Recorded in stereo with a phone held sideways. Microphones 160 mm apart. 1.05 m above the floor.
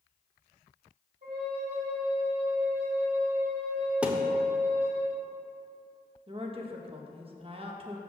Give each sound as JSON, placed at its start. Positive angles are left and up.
{"t": 1.2, "sound": "a flute", "side_deg": -75, "distance_m": 2.5}
{"t": 4.0, "sound": "a thud", "side_deg": -10, "distance_m": 0.8}
{"t": 6.3, "sound": "a woman speaking", "side_deg": -35, "distance_m": 1.0}